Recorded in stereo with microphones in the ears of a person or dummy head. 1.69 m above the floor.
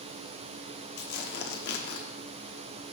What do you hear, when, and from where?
1.0 s tearing paper: 55° left (ahead or behind), 1.1 m